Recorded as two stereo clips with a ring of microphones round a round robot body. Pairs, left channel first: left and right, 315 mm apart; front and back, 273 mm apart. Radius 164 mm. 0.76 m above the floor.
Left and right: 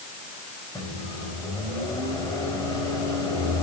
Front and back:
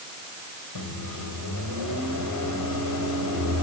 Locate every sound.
0.8 s a microwave: 10° left, 2 m